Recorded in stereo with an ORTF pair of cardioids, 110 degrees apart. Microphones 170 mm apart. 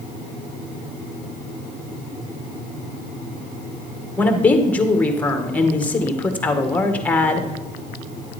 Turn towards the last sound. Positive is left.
turn(degrees=10)